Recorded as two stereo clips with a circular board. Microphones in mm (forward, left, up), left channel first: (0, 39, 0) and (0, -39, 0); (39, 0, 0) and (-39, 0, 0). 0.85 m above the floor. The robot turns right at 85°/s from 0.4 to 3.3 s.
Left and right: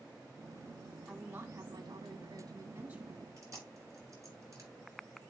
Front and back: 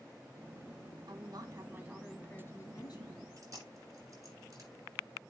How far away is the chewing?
About 7.5 m.